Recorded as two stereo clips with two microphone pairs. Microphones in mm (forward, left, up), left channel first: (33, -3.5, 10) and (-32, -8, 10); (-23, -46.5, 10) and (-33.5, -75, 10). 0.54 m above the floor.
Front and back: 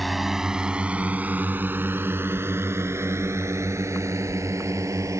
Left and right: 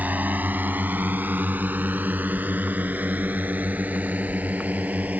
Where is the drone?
85° right; by 5.2 s 140° right.